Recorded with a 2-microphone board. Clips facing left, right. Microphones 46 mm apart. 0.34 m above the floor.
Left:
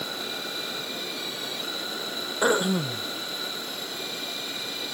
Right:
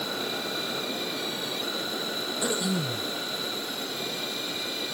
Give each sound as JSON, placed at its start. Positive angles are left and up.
{"t": 2.4, "sound": "throat clearing", "side_deg": 45}